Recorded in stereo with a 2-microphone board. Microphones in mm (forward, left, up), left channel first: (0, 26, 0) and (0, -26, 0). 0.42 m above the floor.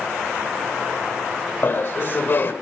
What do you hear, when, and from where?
1.6 s laughter: 45° left (ahead or behind), 1.2 m